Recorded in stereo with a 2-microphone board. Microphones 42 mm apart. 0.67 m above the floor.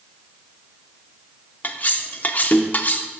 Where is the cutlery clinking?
45° left (ahead or behind), 0.7 m.